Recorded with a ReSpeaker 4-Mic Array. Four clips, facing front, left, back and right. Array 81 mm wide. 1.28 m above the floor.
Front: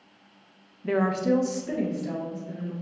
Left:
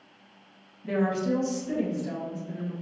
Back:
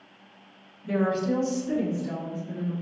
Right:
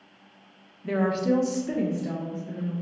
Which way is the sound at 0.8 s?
5° right.